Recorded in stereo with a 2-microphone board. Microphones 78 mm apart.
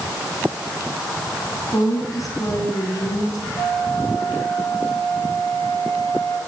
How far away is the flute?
About 7 m.